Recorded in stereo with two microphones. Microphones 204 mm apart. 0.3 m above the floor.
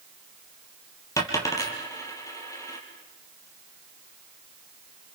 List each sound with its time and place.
1.2 s a dropped coin: 15° left (ahead or behind), 4 m